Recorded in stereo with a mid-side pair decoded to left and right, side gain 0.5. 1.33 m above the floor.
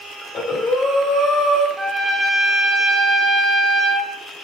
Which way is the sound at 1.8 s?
15° right.